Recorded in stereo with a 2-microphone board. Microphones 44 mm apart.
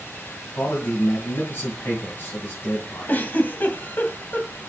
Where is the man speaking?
55° left (ahead or behind), 2.5 m.